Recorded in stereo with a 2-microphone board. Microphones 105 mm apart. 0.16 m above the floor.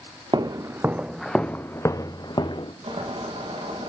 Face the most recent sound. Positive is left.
turn(degrees=-75)  # may be behind; listen again after turning